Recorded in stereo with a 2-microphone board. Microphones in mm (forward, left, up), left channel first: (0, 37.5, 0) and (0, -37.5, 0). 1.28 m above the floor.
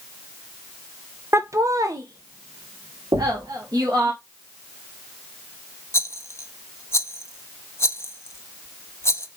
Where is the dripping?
No dripping in this recording.